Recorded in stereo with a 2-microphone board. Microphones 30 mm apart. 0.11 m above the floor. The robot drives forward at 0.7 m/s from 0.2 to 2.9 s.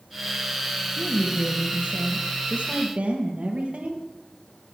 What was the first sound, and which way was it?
A woman speaking, 60° right (ahead or behind).